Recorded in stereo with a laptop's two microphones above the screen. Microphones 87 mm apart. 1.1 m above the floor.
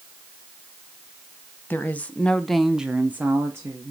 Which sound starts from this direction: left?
A woman speaking, at 1.7 s.